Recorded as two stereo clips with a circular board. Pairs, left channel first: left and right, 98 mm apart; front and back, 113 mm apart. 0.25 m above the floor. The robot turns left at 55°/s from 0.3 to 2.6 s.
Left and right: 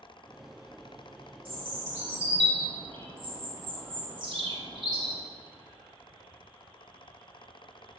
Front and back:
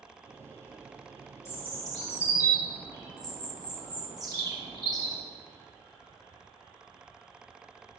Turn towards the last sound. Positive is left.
turn(degrees=-125)